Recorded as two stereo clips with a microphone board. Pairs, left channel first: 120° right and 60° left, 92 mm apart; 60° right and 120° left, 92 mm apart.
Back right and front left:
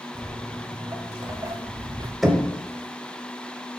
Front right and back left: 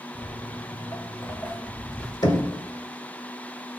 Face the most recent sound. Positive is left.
turn(degrees=-30)